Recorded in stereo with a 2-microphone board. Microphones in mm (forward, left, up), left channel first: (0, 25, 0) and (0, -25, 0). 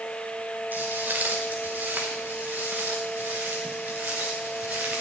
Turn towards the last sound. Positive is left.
turn(degrees=-25)  # may be behind; listen again after turning